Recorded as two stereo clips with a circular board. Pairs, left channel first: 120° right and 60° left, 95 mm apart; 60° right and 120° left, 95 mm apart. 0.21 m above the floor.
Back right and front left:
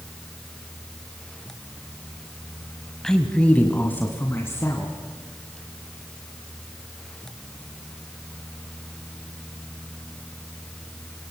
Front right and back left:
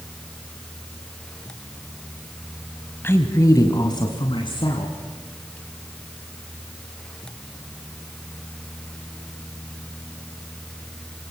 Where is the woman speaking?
45° right, 1.3 m; by 5.0 s 60° right, 2.5 m.